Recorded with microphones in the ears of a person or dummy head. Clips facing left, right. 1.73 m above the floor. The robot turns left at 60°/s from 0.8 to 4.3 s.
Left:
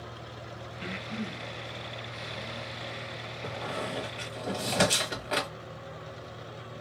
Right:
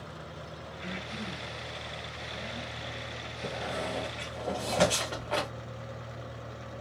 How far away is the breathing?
About 1.2 m.